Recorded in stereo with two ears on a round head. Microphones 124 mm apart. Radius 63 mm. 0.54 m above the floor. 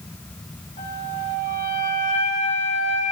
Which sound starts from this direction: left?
A flute, at 0.8 s.